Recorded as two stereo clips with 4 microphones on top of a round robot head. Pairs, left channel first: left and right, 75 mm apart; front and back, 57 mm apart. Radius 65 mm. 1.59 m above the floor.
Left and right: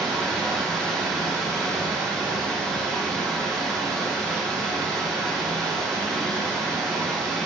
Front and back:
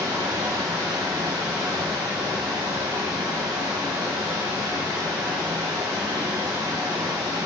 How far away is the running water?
About 1.2 m.